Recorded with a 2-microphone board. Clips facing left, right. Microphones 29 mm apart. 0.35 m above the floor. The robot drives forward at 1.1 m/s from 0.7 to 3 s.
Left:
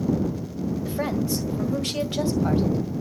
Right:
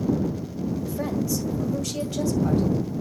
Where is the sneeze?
No sneeze in this recording.